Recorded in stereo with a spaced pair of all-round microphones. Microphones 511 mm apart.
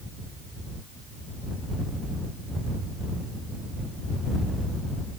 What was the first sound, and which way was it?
Only background noise.